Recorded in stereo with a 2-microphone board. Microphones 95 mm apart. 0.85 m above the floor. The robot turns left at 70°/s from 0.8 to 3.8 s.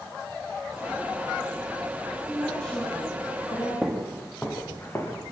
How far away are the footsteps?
About 3 m.